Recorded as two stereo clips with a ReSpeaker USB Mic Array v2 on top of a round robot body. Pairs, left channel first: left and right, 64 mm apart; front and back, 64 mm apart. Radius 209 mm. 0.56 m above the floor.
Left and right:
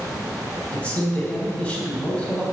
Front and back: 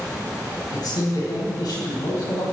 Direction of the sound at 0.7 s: 20° left.